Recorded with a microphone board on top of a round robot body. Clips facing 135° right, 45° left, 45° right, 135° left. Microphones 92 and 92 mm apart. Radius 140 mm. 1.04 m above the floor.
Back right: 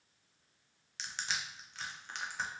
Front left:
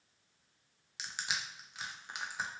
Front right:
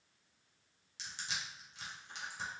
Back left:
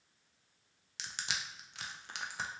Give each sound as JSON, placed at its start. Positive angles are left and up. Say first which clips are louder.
{"t": 1.0, "sound": "crushing", "louder": "even, back left 3 dB", "azimuth_deg": 125, "distance_m": 0.5}